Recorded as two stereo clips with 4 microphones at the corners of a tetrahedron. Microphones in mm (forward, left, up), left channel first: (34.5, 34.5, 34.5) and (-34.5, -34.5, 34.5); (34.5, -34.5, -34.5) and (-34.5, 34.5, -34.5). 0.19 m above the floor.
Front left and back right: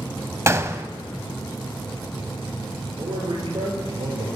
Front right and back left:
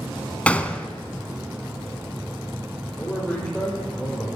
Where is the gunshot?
105° right, 0.6 m.